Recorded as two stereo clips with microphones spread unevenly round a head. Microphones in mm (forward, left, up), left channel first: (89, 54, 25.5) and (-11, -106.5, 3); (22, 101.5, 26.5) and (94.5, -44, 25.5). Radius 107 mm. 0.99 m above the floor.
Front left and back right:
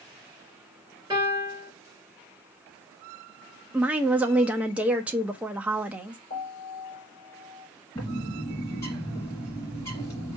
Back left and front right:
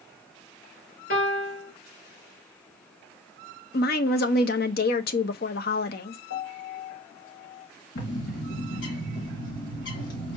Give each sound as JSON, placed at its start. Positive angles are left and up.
{"t": 1.1, "sound": "a piano", "azimuth_deg": 160, "distance_m": 3.5}
{"t": 3.7, "sound": "a woman speaking", "azimuth_deg": 155, "distance_m": 0.6}
{"t": 6.3, "sound": "a piano", "azimuth_deg": 120, "distance_m": 3.0}
{"t": 8.0, "sound": "a bird", "azimuth_deg": 130, "distance_m": 2.0}